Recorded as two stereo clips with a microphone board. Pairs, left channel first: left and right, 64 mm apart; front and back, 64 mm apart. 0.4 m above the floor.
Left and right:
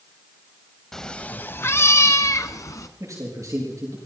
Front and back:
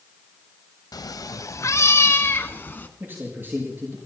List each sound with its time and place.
0.9 s a cat meowing: 5° left, 0.6 m; by 2.9 s 60° left, 1.4 m
3.0 s a man speaking: 125° right, 7.5 m